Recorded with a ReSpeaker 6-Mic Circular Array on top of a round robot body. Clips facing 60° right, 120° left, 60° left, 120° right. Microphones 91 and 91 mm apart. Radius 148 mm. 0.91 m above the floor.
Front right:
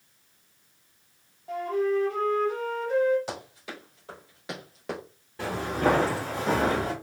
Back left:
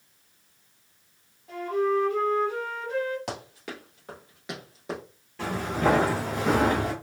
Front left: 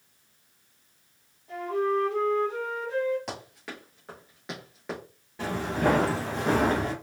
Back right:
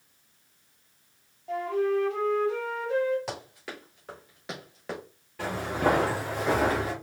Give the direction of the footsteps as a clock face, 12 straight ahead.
12 o'clock.